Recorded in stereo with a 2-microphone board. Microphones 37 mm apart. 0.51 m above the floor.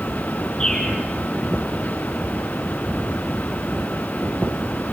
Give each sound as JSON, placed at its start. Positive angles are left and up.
{"t": 0.6, "sound": "a bird", "side_deg": 5, "distance_m": 7.0}